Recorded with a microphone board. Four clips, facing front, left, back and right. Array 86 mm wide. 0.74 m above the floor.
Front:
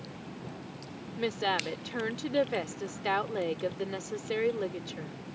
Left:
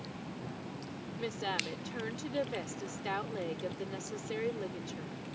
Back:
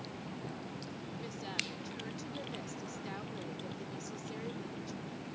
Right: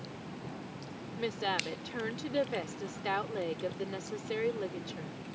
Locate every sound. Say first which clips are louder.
1.2 s a woman speaking: right 3 dB, front 16 dB; 15° right